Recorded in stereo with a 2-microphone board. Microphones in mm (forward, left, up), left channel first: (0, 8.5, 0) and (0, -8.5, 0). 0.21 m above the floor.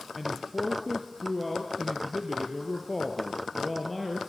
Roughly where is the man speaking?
Centre.